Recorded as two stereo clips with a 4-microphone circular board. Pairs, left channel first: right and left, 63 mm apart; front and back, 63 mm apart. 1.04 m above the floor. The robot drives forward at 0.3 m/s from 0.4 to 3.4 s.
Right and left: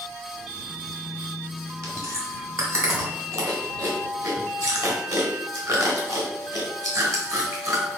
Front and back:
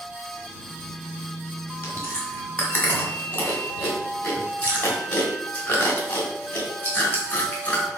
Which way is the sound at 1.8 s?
50° left.